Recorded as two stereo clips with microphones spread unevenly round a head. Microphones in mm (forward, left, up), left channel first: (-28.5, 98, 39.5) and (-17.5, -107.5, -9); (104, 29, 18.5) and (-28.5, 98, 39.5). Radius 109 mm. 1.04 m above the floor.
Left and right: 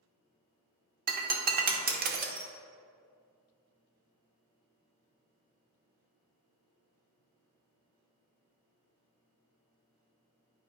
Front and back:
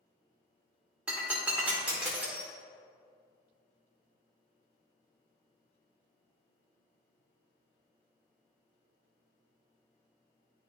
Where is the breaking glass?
135° right, 0.8 m.